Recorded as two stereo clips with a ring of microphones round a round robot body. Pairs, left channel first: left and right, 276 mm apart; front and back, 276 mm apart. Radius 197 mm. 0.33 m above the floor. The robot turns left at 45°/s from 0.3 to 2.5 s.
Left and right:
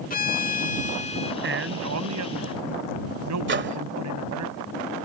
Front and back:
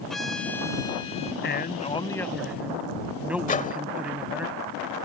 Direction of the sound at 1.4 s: 45° right.